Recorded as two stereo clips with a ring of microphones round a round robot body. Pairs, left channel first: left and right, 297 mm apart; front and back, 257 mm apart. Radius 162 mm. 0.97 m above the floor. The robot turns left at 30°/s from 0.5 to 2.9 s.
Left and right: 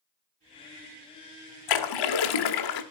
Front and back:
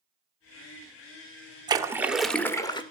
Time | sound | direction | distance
1.7 | a splash | 105° left | 1.3 m